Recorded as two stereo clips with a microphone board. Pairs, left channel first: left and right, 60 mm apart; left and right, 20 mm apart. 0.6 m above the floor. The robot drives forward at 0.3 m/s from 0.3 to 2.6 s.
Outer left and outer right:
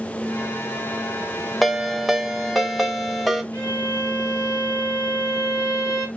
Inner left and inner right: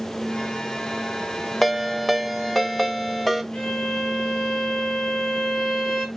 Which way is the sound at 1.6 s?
Centre (ahead or behind).